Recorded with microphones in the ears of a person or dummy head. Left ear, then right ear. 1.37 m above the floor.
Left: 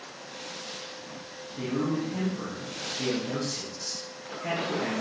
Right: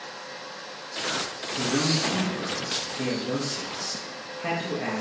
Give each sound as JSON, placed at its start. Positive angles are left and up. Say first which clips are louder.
{"t": 1.6, "sound": "a man speaking", "louder": "right 5 dB", "side_deg": -60, "distance_m": 1.8}